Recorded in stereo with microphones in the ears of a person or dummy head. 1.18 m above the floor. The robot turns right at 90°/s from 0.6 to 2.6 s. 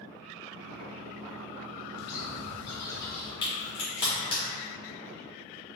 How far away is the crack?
About 1.4 m.